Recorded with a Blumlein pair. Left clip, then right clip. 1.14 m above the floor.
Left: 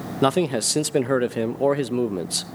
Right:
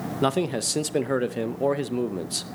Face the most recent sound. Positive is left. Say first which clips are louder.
# left 4 dB
turn(degrees=10)